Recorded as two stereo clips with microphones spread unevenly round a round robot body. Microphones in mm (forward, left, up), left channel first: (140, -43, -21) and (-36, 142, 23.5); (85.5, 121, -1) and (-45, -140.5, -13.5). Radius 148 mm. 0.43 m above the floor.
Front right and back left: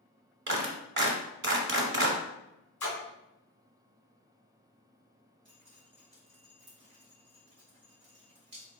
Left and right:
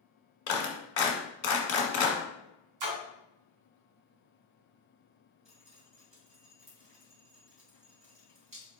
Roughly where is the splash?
Behind right.